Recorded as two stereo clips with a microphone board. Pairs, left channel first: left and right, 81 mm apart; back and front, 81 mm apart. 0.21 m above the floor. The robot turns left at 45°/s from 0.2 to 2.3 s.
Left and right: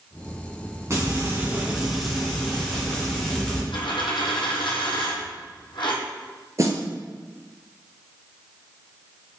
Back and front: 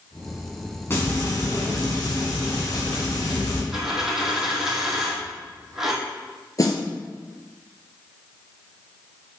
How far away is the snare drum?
About 1.1 m.